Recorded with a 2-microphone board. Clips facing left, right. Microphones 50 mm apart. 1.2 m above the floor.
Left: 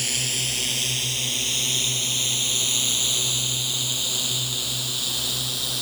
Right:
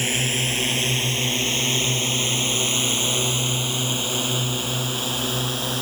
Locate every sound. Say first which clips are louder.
0.0 s a drone: right 5 dB; 30° right (ahead or behind); by 5.8 s 35° right (ahead or behind)